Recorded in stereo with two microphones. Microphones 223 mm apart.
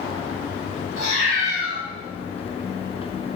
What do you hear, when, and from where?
1.0 s a cat meowing: 80° left, 1.8 m